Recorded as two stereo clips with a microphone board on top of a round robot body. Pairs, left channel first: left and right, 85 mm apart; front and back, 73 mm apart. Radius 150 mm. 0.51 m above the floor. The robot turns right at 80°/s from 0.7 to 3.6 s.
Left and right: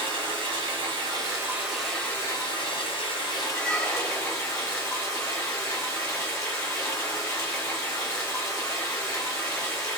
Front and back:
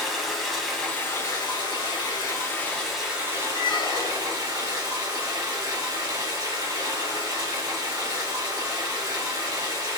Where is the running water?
90° right, 1.4 m; by 10.0 s 140° left, 1.4 m.